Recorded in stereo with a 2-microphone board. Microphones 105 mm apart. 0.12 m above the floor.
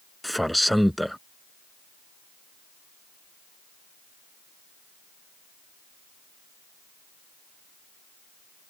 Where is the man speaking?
Centre (ahead or behind).